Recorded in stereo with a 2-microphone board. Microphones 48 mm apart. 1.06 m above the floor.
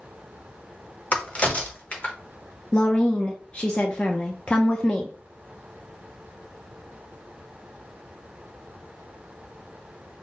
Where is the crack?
30° left (ahead or behind), 0.8 m.